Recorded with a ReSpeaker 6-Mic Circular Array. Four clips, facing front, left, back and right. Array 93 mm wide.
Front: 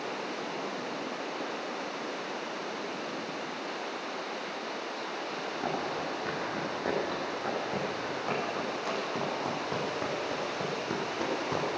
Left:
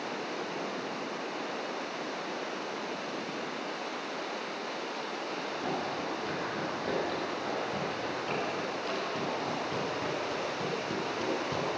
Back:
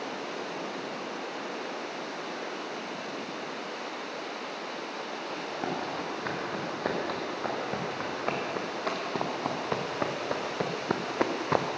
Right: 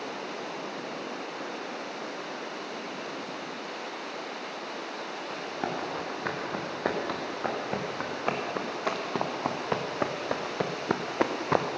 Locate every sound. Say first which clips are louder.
5.3 s running footsteps: right 2 dB, back 1 dB; 110° right, 4.5 m; by 11.7 s 120° right, 1.4 m